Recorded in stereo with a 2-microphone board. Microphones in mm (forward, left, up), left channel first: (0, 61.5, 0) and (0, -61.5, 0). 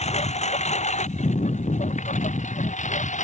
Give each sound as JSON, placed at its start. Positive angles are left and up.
{"t": 0.0, "sound": "a lawn mower", "side_deg": 65}